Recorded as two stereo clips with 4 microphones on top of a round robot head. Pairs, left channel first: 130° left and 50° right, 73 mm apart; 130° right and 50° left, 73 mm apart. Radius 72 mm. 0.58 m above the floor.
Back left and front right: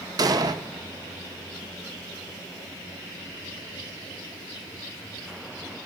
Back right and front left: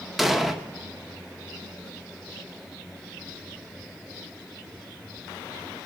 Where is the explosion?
40° right, 0.8 m.